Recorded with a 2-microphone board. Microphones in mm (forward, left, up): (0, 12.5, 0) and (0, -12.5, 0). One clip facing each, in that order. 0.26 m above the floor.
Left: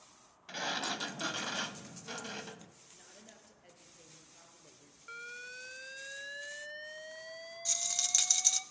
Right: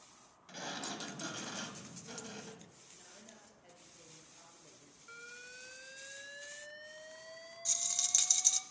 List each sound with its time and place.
0.5 s a sliding door: 40° left (ahead or behind), 0.9 m
2.9 s a woman speaking: 15° left (ahead or behind), 5 m
5.1 s an alarm: 30° left (ahead or behind), 0.8 m
7.7 s a rattle: 20° left (ahead or behind), 0.8 m